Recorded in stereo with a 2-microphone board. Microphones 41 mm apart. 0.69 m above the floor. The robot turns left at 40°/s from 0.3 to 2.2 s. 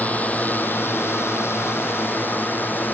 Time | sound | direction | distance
0.0 | a drone | 40° left (ahead or behind) | ?